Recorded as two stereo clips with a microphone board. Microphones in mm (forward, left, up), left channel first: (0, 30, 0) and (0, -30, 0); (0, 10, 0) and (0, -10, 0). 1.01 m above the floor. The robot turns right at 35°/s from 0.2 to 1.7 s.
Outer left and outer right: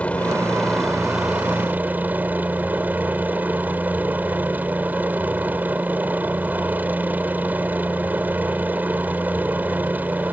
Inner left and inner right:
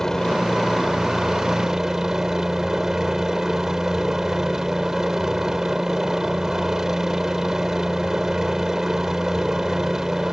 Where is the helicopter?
155° left; by 10.3 s 150° right.